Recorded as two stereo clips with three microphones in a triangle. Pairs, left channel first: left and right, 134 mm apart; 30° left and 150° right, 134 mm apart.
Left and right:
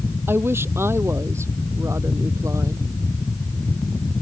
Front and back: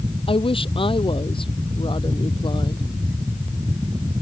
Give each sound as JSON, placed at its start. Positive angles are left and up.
{"t": 0.3, "sound": "a woman speaking", "azimuth_deg": -15}